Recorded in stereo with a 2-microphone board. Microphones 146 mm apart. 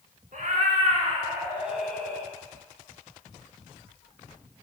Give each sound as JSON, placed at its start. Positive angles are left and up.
{"t": 0.3, "sound": "a cat meowing", "side_deg": -65, "distance_m": 0.7}